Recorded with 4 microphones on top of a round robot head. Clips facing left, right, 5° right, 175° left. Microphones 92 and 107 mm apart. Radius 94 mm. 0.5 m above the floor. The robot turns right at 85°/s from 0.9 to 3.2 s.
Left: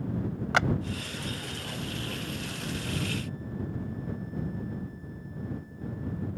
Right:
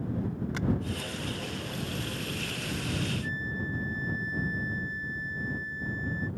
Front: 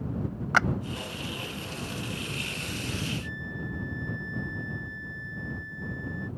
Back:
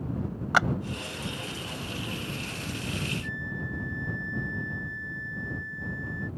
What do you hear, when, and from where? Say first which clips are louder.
0.5 s a clap: left 13 dB, back 1 dB; 100° left
3.2 s a flute: right 2 dB, back 1 dB; 80° right